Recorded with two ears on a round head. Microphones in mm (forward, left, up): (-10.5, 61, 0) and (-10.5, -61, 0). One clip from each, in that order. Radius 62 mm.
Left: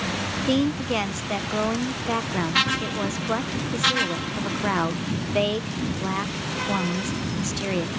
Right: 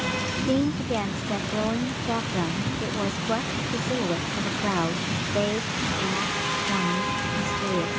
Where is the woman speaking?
50° left (ahead or behind).